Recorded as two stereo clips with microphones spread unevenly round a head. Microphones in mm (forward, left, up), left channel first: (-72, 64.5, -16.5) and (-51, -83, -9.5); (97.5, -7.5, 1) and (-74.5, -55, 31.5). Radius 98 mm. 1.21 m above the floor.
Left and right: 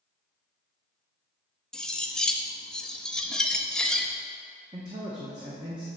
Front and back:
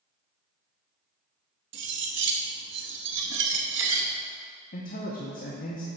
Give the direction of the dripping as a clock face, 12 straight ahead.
I don't hear dripping.